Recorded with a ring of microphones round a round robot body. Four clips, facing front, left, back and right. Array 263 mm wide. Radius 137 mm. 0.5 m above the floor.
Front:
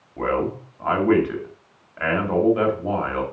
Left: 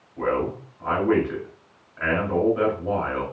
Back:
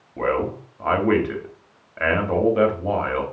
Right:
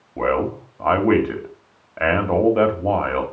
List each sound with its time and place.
0.2 s a man speaking: 100° right, 2.5 m